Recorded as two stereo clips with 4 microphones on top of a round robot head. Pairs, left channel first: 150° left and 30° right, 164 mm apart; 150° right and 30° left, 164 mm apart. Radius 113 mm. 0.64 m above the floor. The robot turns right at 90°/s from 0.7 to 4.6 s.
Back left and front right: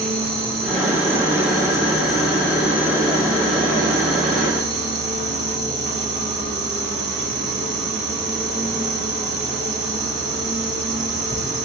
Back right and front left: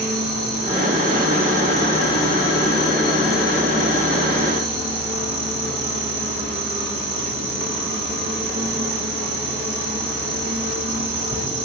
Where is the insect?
25° left, 3.5 m; by 11.7 s 20° left, 3.5 m.